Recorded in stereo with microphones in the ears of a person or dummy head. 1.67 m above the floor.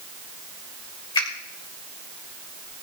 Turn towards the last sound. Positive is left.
turn(degrees=30)  # may be behind; listen again after turning